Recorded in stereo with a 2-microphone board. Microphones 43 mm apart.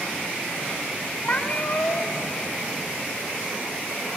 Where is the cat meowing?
45° left (ahead or behind), 1.2 m.